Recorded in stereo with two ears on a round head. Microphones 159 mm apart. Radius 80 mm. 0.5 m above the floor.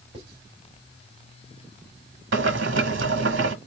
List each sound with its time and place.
0.1 s writing: 30° right (ahead or behind), 3 m
2.3 s boiling: 70° right (ahead or behind), 1.2 m